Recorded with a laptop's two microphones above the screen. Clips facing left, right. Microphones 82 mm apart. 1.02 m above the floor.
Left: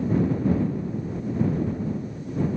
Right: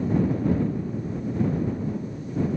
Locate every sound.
Only background noise.